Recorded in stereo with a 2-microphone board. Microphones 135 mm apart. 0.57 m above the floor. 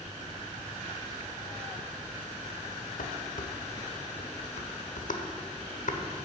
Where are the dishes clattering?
70° left (ahead or behind), 1.1 m.